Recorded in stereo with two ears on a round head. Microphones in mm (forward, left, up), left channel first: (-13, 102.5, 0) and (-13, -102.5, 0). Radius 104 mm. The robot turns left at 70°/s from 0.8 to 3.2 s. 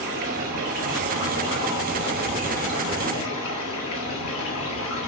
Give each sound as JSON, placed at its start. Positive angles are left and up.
{"t": 0.0, "sound": "running water", "azimuth_deg": -100, "distance_m": 2.0}